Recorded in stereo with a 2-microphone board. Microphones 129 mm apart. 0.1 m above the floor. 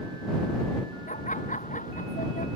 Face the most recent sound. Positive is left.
turn(degrees=80)